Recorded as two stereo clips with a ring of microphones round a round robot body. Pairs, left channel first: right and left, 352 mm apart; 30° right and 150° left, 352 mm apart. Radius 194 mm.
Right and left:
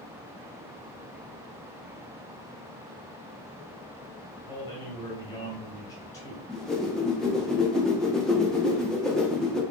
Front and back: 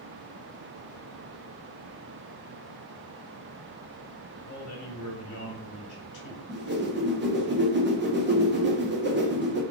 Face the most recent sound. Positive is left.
turn(degrees=180)